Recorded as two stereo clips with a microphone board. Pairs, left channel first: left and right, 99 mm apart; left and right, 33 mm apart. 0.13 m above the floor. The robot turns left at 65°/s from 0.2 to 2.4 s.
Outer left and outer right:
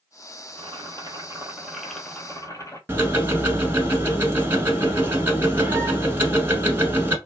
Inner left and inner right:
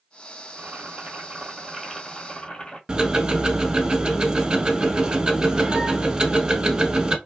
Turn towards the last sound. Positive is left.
turn(degrees=-25)  # may be behind; listen again after turning